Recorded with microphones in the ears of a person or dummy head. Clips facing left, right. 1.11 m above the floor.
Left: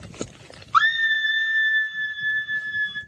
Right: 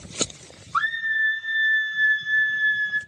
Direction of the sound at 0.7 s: 60° left (ahead or behind).